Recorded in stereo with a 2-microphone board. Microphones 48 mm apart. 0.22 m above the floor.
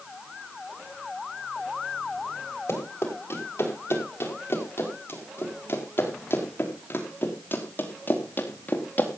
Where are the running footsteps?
55° left (ahead or behind), 7 m; by 9.1 s 40° left (ahead or behind), 3 m.